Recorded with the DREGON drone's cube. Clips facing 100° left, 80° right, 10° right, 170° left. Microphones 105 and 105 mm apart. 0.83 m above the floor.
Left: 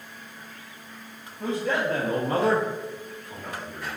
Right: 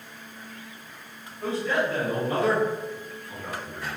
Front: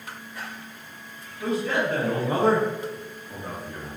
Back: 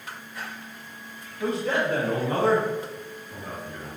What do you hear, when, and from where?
1.4 s a man speaking: 135° left, 1.4 m; by 3.9 s 5° right, 2 m